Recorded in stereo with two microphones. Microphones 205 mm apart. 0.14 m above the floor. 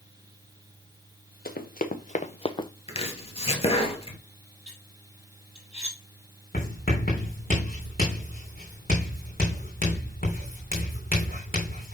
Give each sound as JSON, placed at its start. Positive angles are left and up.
{"t": 1.4, "sound": "running footsteps", "side_deg": 50, "distance_m": 1.4}
{"t": 2.9, "sound": "chopping", "side_deg": 30, "distance_m": 1.6}
{"t": 4.7, "sound": "cutlery clinking", "side_deg": 30, "distance_m": 3.0}
{"t": 6.5, "sound": "writing", "side_deg": 50, "distance_m": 4.0}